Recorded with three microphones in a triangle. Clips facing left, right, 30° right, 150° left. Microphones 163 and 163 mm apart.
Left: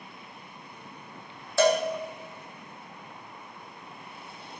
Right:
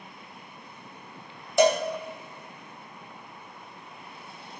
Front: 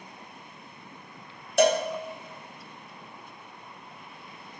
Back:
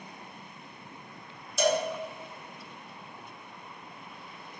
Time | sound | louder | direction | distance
1.6 | a cowbell | right 1 dB, front 5 dB | 20° right | 0.7 m